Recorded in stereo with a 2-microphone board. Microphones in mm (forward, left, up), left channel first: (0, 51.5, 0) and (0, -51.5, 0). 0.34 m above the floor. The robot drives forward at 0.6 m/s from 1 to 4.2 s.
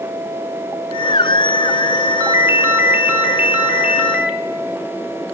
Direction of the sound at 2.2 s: 30° right (ahead or behind).